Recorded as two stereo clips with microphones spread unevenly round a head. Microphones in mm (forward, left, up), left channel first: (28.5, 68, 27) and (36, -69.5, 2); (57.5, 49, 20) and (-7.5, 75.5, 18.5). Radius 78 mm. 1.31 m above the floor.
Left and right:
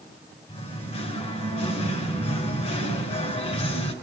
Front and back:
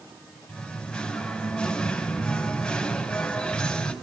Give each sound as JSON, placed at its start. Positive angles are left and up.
{"t": 0.5, "sound": "singing", "azimuth_deg": 55, "distance_m": 4.5}